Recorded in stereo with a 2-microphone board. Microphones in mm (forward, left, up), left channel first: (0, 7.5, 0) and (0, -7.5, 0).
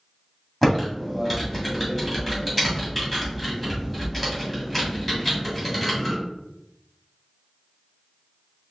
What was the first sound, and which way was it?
Typing on a keyboard, centre (ahead or behind).